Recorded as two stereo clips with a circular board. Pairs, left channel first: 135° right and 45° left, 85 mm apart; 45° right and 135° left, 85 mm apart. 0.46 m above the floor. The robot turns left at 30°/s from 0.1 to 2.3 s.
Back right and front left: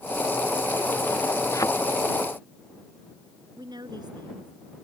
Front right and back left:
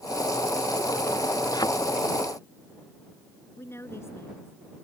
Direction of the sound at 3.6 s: 15° left.